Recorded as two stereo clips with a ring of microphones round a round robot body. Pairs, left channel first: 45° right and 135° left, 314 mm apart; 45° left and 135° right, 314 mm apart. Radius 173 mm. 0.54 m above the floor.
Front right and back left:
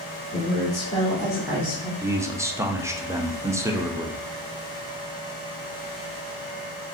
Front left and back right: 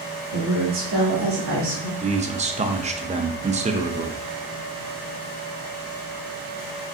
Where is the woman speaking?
95° right, 1.9 m; by 1.9 s 145° right, 2.5 m.